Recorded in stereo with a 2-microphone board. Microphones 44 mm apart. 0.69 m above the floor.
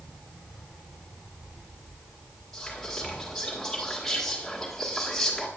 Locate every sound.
2.5 s whispering: 10° left (ahead or behind), 1.6 m